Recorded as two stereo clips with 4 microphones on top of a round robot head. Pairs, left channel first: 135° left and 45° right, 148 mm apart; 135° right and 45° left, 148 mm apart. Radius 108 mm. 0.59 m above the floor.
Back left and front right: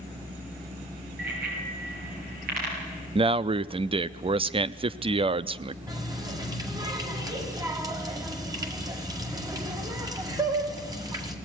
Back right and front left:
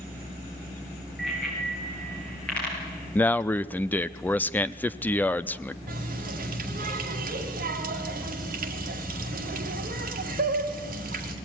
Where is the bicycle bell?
45° right, 7.5 m; by 3.0 s 60° right, 9 m.